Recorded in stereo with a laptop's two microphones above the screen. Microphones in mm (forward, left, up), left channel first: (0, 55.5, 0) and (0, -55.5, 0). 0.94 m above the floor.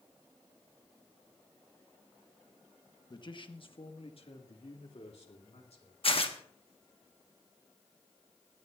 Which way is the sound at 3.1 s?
40° left (ahead or behind).